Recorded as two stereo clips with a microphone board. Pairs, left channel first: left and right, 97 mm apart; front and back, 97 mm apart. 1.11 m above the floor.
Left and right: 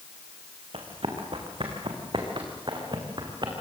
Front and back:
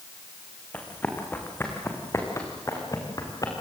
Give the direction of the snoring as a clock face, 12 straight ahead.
No snoring in this recording.